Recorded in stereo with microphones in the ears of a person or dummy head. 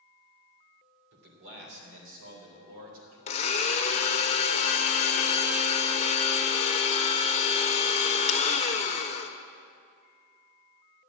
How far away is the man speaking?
About 3 m.